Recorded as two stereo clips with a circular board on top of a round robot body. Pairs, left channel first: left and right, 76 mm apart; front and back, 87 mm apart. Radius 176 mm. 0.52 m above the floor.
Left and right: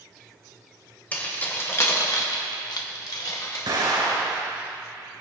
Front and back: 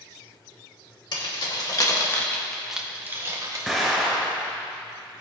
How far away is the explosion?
About 4 m.